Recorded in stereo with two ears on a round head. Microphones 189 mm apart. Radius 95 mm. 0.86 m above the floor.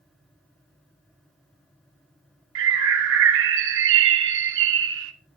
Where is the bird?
60° right (ahead or behind), 1.0 m.